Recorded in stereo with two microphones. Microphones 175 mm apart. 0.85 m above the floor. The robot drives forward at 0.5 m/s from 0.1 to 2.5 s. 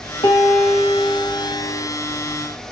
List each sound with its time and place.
0.2 s a piano: 30° left (ahead or behind), 1.4 m; by 1.8 s 20° left (ahead or behind), 2.0 m